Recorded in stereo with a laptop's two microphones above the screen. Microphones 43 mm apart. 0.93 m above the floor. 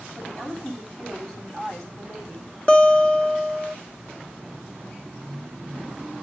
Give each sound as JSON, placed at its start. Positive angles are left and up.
{"t": 0.2, "sound": "a woman speaking", "side_deg": 20, "distance_m": 9.0}
{"t": 2.7, "sound": "a guitar", "side_deg": 25, "distance_m": 2.5}